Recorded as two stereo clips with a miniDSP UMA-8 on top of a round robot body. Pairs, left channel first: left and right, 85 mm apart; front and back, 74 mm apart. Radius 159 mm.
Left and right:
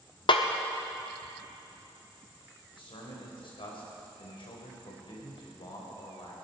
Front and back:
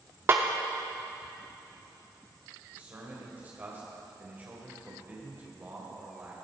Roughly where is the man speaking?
Behind left.